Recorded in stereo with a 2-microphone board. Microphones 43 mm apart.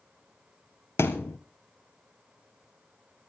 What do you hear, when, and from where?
1.0 s a thud: 80° left, 1.5 m